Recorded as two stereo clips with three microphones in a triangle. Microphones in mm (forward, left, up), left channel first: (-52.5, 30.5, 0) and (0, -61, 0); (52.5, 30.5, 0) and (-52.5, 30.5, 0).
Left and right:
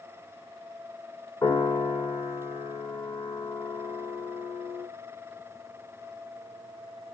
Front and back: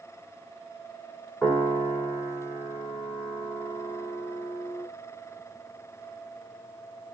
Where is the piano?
90° left, 1.5 m.